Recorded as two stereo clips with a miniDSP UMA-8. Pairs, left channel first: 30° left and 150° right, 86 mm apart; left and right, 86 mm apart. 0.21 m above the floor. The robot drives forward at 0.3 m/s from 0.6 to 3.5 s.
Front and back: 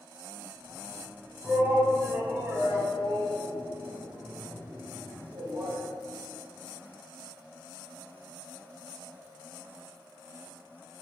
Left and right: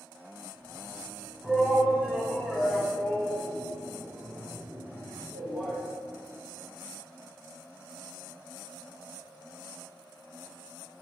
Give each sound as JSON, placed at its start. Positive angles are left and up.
{"t": 1.4, "sound": "a shout", "azimuth_deg": 180, "distance_m": 1.5}